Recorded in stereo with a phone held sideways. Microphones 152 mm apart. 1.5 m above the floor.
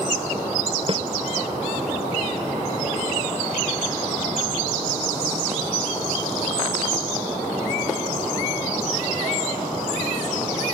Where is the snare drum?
40° right (ahead or behind).